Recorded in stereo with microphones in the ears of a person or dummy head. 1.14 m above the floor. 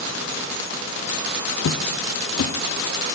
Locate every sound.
1.6 s footsteps: 60° left (ahead or behind), 2.5 m